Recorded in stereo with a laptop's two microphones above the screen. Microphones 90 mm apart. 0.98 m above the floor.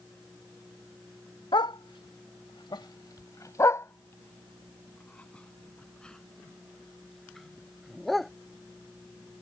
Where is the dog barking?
65° left (ahead or behind); by 8.3 s centre (ahead or behind).